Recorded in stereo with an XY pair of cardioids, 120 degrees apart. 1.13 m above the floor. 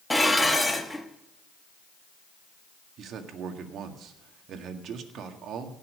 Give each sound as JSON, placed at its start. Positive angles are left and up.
{"t": 0.1, "sound": "dishes clattering", "azimuth_deg": 5, "distance_m": 1.4}
{"t": 3.0, "sound": "a man speaking", "azimuth_deg": -60, "distance_m": 1.8}